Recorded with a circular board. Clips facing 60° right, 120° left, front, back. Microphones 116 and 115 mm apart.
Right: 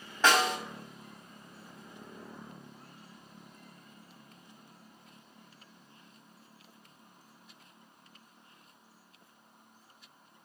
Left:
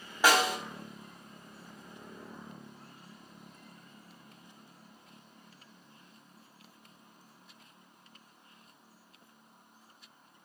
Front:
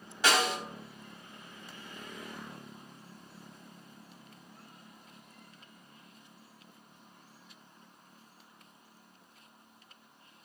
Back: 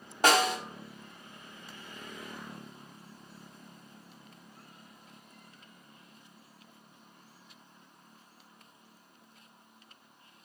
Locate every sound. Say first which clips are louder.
0.2 s a snare drum: even, back 4 dB; 165° right, 1.3 m